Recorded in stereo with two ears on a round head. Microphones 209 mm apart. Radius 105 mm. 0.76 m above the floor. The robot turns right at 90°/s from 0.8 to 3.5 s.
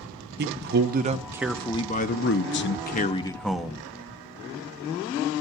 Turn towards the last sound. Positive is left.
turn(degrees=180)